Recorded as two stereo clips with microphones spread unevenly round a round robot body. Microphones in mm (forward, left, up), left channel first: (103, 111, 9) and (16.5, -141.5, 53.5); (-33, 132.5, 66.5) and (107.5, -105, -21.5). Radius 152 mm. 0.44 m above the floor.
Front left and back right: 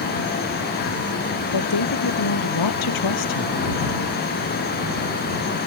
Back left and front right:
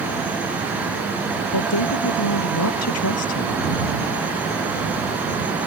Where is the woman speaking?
90° left; by 3.6 s 85° left.